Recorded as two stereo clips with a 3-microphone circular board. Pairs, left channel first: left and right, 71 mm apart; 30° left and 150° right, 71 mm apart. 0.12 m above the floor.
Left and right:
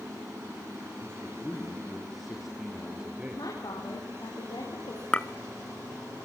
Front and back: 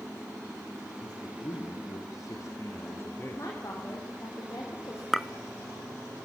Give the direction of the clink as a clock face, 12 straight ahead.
8 o'clock.